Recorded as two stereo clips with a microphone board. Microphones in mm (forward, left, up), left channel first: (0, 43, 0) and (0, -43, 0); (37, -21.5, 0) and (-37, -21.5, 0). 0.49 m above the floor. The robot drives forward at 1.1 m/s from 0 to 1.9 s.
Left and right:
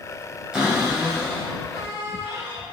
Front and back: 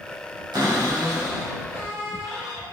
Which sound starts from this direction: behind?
A cupboard door, at 0.5 s.